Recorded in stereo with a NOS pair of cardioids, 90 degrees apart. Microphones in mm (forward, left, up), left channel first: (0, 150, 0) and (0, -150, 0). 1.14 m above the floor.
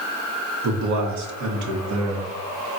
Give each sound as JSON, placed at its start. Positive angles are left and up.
{"t": 0.6, "sound": "a man speaking", "azimuth_deg": -70, "distance_m": 0.8}